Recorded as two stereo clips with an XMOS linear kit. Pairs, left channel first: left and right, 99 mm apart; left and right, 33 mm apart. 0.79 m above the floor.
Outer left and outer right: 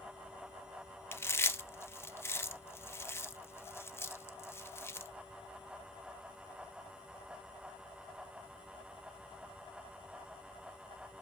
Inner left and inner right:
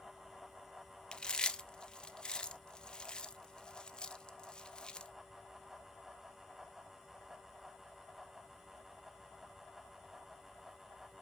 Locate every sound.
1.1 s chewing: 25° left (ahead or behind), 0.5 m